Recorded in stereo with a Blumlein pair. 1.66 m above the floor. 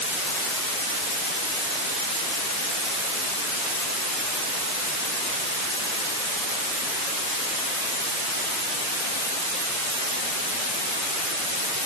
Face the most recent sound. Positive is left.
No sound to turn to.